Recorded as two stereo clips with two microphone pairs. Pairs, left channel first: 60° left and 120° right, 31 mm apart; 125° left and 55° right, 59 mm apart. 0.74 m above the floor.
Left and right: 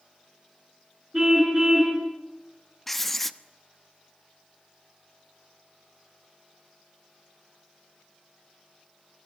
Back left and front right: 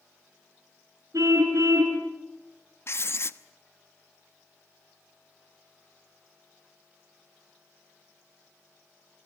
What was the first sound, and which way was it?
A car horn, 45° right.